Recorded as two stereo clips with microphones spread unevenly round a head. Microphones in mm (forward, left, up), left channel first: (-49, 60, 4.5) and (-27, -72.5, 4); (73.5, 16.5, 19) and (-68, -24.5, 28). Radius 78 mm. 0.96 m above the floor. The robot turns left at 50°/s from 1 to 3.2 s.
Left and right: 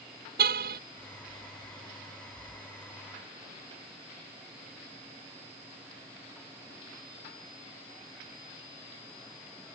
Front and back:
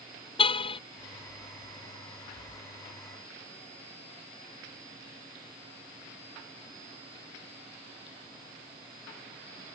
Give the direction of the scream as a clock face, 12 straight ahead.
No scream in this recording.